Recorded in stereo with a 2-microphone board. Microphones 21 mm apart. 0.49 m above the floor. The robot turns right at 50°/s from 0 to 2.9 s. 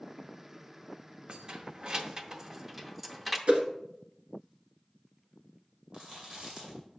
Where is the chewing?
40° right (ahead or behind), 2.5 m.